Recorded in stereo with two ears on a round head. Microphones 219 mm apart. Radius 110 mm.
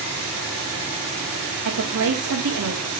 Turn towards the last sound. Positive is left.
turn(degrees=-65)  # may be behind; listen again after turning